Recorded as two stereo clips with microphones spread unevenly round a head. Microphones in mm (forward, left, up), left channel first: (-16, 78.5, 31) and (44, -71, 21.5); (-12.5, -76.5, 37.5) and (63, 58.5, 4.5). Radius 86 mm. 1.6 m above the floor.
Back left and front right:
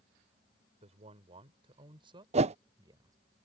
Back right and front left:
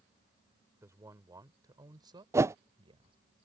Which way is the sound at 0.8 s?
15° right.